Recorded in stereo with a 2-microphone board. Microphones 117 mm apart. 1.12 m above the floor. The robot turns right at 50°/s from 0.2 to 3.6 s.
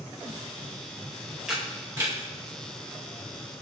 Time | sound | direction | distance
1.5 | a camera shutter | 5° right (ahead or behind) | 1.9 m